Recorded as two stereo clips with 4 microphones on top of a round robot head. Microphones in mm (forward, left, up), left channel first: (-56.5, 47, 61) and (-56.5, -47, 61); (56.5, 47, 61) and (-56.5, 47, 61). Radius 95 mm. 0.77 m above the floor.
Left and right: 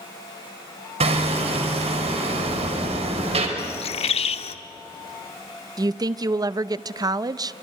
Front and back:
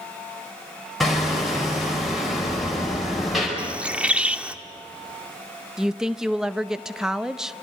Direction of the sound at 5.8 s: 100° right.